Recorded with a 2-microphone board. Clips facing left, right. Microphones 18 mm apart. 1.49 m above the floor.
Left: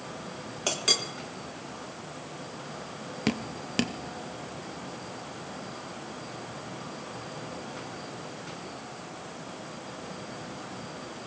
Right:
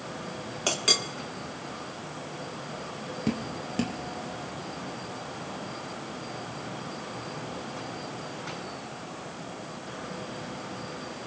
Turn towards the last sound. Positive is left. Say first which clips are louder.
# left 1 dB
turn(degrees=50)  # may be behind; listen again after turning